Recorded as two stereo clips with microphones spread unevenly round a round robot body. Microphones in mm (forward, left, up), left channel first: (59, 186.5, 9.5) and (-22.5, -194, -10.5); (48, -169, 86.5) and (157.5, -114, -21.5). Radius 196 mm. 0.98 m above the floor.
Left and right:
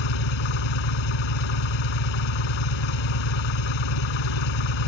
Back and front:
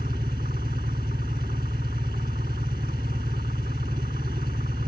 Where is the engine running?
100° left.